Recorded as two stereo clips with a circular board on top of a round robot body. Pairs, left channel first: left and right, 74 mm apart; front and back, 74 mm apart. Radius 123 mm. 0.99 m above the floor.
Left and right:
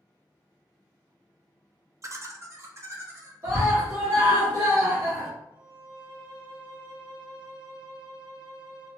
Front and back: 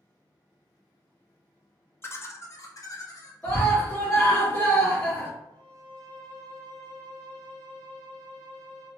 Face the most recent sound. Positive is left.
turn(degrees=-70)